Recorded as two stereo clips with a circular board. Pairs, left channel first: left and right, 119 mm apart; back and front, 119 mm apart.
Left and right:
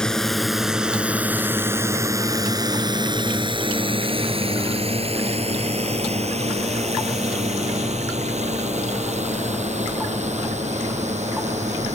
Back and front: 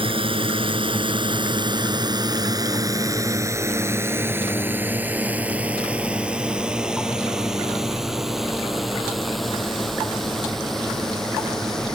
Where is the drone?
10° left; by 12.0 s 95° right.